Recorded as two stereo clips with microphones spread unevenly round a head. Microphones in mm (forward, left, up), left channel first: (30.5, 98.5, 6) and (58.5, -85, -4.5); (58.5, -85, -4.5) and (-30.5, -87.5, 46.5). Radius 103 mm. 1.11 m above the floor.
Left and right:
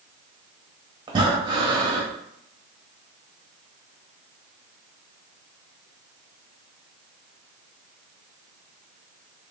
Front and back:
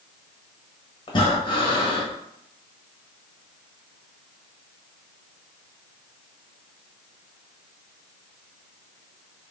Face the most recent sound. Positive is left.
turn(degrees=-45)